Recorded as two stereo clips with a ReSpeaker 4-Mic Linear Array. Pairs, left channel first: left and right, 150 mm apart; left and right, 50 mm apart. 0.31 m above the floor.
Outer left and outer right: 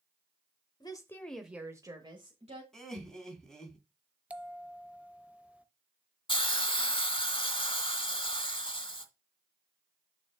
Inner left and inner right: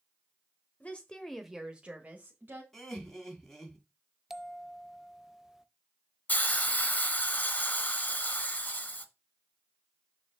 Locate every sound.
0.8 s a woman speaking: 30° left (ahead or behind), 1.2 m; by 2.6 s 45° right (ahead or behind), 1.6 m
2.7 s laughter: 5° left (ahead or behind), 2.5 m
4.3 s a bell: 10° right (ahead or behind), 0.5 m
6.3 s a hiss: 35° left (ahead or behind), 1.2 m